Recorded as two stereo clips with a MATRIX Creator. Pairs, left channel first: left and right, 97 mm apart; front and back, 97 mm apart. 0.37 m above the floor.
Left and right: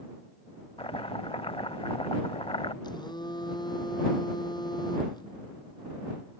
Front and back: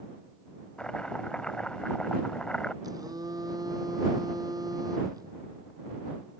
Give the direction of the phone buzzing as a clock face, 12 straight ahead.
8 o'clock.